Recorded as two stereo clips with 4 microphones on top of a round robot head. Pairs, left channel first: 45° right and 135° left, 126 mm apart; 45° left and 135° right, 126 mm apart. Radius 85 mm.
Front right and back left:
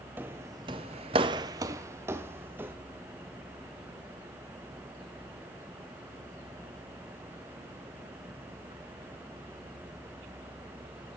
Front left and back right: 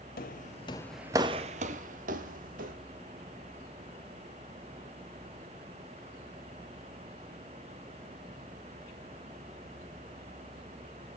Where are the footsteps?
55° left, 1.1 m; by 2.8 s 150° right, 2.5 m.